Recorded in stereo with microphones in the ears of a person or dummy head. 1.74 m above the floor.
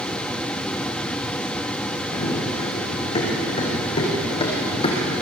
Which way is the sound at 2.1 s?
30° left (ahead or behind).